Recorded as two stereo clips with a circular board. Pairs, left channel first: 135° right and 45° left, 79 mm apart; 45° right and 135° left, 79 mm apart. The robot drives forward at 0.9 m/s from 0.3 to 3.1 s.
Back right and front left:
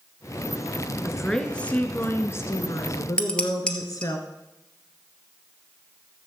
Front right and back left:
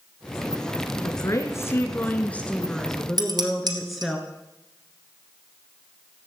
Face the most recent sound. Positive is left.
turn(degrees=150)